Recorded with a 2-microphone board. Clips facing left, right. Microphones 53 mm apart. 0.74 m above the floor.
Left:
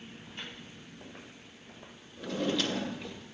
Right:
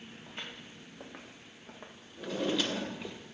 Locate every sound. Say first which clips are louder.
0.3 s footsteps: right 1 dB; 75° right (ahead or behind), 3 m; by 3.2 s 15° right (ahead or behind), 0.8 m
2.2 s a drawer: left 1 dB; 5° right (ahead or behind), 0.7 m